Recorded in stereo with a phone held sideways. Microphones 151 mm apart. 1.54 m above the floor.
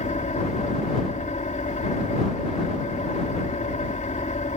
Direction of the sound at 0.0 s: 55° left (ahead or behind).